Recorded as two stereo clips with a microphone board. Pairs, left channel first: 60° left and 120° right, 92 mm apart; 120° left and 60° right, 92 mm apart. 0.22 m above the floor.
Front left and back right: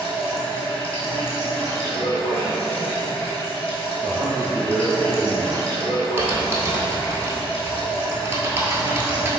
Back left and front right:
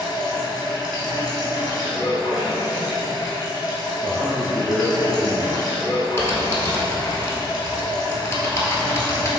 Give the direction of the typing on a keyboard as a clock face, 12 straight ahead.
6 o'clock.